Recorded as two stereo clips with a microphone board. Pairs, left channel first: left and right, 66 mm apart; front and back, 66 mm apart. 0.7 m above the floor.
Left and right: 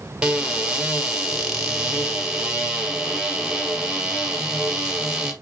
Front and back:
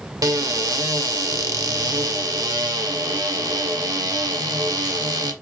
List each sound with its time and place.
0.2 s a cupboard door: 165° right, 0.9 m